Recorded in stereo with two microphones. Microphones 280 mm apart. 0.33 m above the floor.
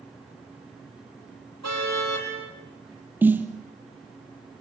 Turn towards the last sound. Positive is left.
turn(degrees=-5)  # may be behind; listen again after turning